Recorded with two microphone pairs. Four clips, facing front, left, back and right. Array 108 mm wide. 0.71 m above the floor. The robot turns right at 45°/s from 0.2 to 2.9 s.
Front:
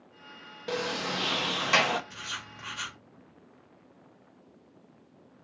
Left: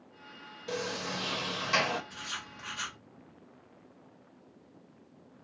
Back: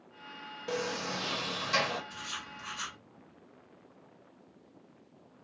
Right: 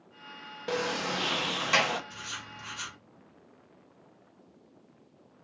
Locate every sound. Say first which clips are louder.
0.7 s a sliding door: right 5 dB, front 3 dB; 75° right, 0.5 m; by 2.0 s 15° right, 0.5 m
2.1 s writing: even, front 1 dB; 20° right, 1.8 m; by 3.0 s 15° left, 1.8 m